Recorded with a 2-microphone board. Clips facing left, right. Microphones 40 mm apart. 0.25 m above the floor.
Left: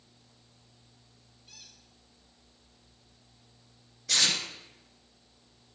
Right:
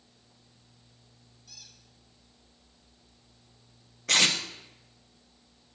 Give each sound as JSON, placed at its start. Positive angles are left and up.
{"t": 1.5, "sound": "a squeak", "side_deg": 35, "distance_m": 4.0}
{"t": 4.1, "sound": "tape being pulled", "side_deg": -55, "distance_m": 1.6}